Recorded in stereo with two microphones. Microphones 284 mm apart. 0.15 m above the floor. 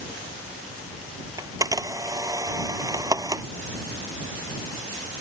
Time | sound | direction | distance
1.4 | a camera shutter | 15° right (ahead or behind) | ?